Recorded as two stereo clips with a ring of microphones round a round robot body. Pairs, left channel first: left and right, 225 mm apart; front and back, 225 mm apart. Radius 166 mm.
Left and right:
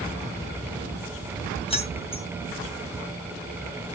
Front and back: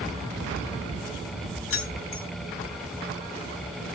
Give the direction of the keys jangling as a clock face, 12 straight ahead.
11 o'clock.